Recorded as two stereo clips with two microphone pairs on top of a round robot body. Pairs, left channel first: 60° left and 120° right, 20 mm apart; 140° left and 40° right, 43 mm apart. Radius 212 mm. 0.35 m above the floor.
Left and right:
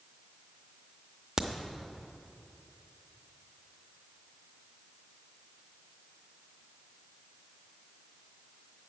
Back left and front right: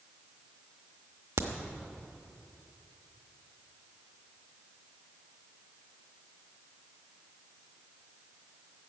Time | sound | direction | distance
1.4 | a crack | 55° right | 0.8 m